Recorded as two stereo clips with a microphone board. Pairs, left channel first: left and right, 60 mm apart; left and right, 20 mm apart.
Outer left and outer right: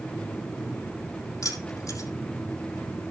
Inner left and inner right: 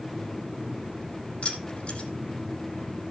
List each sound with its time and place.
1.4 s keys jangling: 70° left (ahead or behind), 5.5 m